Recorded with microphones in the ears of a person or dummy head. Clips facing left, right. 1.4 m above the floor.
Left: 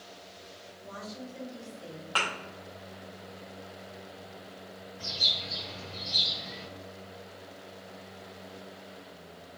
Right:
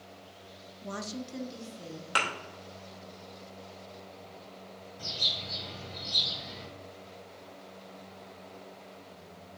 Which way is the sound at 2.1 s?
25° right (ahead or behind).